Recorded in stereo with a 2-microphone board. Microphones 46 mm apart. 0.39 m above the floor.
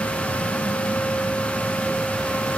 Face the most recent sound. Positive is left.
No sound to turn to.